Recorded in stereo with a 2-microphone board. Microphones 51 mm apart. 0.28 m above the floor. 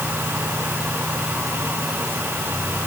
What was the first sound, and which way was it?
Only background noise.